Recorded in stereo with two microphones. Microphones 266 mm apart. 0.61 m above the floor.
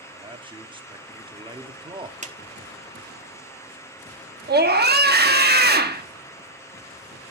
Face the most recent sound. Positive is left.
turn(degrees=-40)  # may be behind; listen again after turning